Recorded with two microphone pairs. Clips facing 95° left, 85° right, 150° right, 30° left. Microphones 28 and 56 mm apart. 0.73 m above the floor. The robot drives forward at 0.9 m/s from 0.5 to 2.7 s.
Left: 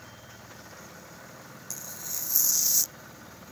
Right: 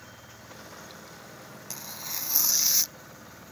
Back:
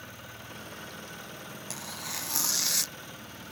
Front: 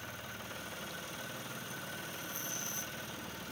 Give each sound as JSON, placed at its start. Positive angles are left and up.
{"t": 1.7, "sound": "tearing paper", "azimuth_deg": -140}